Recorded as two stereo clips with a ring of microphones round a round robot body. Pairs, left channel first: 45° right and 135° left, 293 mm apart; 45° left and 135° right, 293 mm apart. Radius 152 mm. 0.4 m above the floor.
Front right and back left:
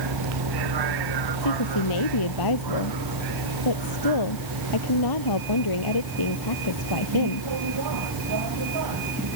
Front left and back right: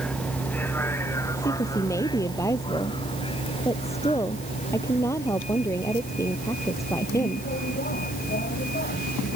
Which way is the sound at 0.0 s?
130° left.